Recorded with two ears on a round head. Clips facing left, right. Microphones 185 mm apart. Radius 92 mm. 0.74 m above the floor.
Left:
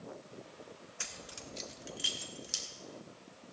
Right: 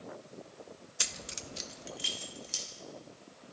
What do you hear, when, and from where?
1.0 s keys jangling: 50° right (ahead or behind), 0.7 m; by 2.6 s 15° left (ahead or behind), 1.9 m